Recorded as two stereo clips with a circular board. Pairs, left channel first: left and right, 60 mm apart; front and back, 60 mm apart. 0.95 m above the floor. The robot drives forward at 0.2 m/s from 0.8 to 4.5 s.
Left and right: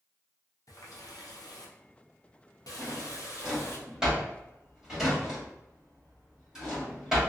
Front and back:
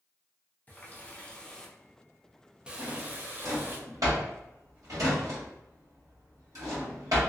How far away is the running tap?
About 0.5 m.